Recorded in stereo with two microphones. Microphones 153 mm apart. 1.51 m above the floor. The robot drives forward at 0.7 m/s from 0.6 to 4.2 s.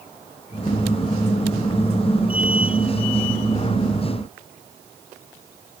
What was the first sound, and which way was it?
Only background noise.